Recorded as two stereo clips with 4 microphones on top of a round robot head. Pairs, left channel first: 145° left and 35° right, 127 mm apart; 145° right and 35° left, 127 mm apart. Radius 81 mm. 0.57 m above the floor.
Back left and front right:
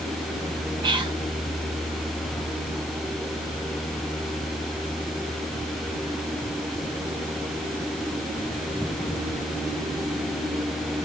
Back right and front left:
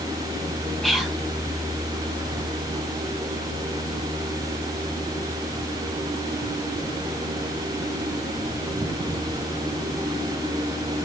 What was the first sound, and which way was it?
Whispering, 55° right.